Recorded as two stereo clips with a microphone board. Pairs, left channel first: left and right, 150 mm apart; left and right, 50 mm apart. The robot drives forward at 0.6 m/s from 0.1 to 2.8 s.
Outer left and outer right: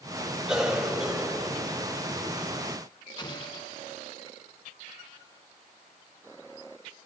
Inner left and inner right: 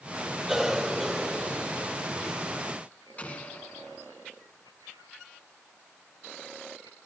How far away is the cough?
About 3 m.